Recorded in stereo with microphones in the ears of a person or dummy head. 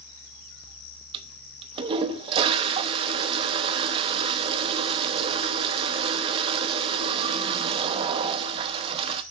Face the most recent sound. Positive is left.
turn(degrees=-30)  # may be behind; listen again after turning